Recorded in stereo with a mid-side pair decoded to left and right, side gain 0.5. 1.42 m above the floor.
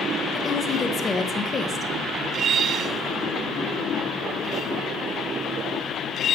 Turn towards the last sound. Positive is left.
turn(degrees=30)